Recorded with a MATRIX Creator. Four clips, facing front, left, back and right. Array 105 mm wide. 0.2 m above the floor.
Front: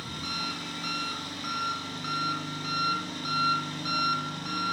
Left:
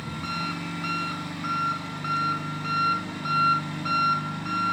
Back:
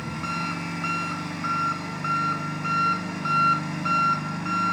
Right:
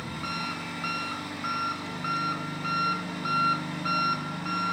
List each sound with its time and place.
0.0 s an engine running: 175° right, 1.1 m